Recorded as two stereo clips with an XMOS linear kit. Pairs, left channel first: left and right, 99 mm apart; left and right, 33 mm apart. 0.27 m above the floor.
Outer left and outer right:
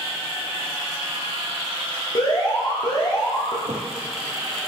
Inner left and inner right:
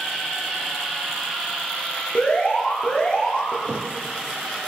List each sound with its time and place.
2.1 s an alarm: 45° left (ahead or behind), 5.5 m
3.7 s a thud: 75° right (ahead or behind), 1.8 m